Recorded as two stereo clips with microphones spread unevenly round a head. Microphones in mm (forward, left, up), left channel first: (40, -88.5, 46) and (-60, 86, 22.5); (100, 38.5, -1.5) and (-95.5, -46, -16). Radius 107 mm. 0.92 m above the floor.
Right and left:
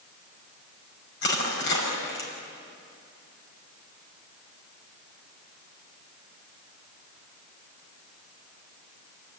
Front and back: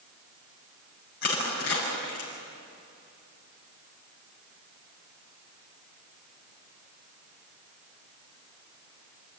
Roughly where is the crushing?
Ahead.